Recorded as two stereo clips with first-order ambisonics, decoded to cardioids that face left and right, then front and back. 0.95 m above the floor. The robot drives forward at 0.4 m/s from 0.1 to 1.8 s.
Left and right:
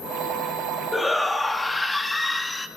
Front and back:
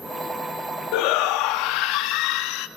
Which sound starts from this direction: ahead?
A shout, at 0.9 s.